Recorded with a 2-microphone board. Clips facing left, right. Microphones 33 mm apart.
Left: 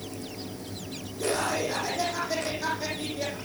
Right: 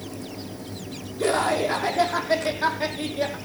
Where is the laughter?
45° right (ahead or behind), 5.5 m; by 3.4 s 30° right (ahead or behind), 5.5 m.